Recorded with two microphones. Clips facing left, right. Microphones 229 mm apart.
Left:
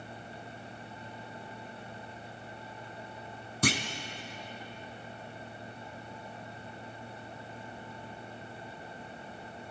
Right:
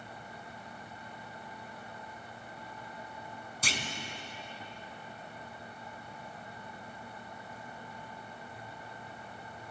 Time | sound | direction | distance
3.6 | a clunk | 65° left (ahead or behind) | 1.7 m